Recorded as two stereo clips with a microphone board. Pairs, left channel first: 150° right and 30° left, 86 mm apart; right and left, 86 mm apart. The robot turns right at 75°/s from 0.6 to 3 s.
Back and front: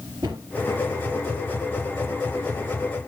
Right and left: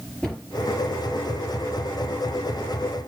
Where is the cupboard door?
5° right, 4 m.